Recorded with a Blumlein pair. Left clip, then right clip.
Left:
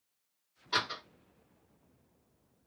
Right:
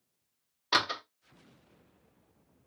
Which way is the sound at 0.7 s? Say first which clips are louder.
Right 5 dB; 30° right.